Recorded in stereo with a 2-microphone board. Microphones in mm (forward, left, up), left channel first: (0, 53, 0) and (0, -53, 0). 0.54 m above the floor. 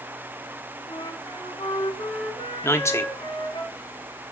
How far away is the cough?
No cough in this recording.